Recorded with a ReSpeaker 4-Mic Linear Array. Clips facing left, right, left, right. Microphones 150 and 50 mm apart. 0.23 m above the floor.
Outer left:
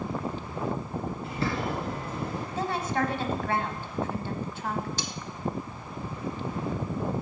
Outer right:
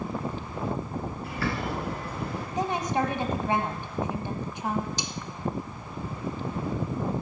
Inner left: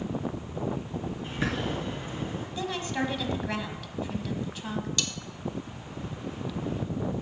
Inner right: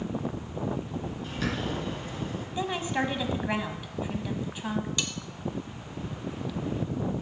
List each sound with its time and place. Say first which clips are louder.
1.2 s a bird: outer left 1 dB, inner left 1 dB; 25° left (ahead or behind), 3 m
2.6 s a woman speaking: outer right 2 dB, inner right 2 dB; 15° right (ahead or behind), 1.1 m
5.0 s cutlery clinking: even, even; 20° right (ahead or behind), 0.7 m